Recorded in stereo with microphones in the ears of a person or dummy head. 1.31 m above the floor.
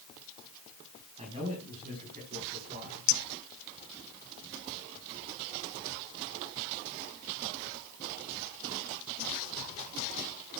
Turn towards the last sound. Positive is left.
turn(degrees=70)  # may be behind; listen again after turning